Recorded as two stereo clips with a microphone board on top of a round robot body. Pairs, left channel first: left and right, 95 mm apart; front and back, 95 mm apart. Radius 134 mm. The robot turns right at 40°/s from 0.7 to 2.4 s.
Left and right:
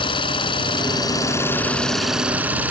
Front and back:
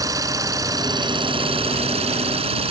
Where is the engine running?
125° left; by 2.7 s 165° right.